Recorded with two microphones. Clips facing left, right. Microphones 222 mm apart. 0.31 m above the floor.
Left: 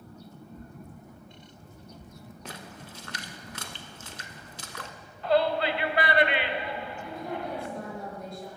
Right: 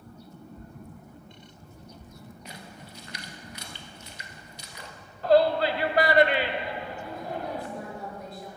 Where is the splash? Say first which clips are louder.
Left 4 dB; 85° left, 0.8 m.